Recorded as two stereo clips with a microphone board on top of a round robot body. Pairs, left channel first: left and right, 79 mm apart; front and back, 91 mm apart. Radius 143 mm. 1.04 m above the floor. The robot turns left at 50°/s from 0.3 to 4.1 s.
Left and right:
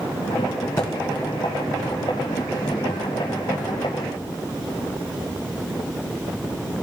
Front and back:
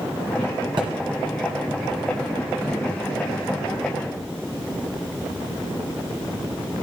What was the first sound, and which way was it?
A thud, 140° left.